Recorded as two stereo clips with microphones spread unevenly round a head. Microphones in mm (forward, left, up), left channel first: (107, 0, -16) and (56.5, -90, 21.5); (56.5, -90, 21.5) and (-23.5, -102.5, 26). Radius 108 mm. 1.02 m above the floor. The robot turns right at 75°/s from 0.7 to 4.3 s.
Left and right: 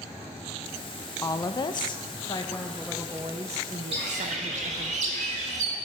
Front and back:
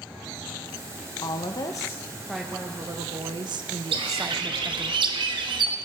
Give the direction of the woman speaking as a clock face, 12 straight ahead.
12 o'clock.